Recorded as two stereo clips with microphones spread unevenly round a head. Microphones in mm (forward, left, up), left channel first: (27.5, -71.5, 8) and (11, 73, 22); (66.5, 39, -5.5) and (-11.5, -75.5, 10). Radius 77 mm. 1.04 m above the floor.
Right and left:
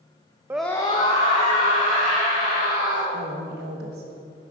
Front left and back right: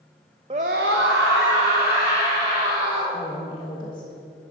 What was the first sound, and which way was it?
A scream, 175° left.